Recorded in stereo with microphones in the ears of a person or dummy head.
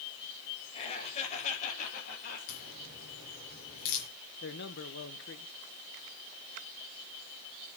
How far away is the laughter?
About 5.5 m.